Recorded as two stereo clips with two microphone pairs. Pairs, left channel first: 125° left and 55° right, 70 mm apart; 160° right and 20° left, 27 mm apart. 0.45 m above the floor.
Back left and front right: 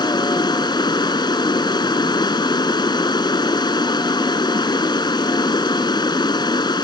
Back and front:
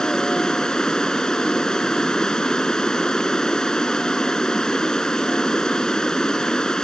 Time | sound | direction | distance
0.0 | running water | 135° left | ?